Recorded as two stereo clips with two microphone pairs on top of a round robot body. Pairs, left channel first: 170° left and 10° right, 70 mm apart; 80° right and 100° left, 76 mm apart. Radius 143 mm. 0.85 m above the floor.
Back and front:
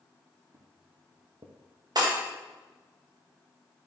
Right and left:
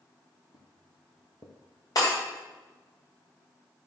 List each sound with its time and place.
0.5 s footsteps: 60° right, 1.5 m; by 1.6 s 40° right, 1.1 m
1.9 s breaking glass: 40° right, 3 m